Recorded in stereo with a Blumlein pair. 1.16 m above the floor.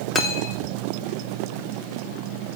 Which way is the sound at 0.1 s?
15° left.